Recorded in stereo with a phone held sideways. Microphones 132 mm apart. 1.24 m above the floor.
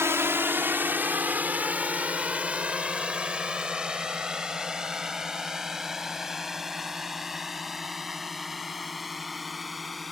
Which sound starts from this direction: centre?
A drone, at 0.0 s.